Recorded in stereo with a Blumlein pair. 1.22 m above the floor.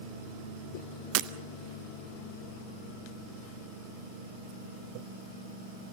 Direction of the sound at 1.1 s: 45° right.